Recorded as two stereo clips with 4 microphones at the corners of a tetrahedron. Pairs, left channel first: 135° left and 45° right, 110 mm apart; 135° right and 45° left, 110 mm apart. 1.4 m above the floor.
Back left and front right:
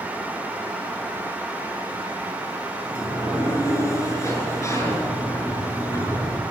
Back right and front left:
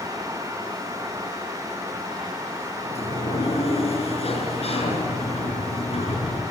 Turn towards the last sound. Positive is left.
turn(degrees=-160)